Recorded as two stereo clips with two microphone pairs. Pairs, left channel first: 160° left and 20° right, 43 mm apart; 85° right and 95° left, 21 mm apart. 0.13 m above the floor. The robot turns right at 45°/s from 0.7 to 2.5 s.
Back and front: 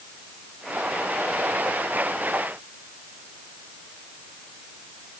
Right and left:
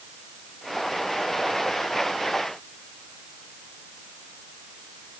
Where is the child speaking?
No child speaking in this recording.